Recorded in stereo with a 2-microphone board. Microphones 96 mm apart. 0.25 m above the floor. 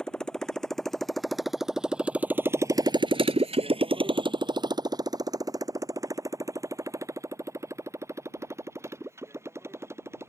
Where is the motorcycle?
5° left (ahead or behind); by 10.3 s 25° right (ahead or behind).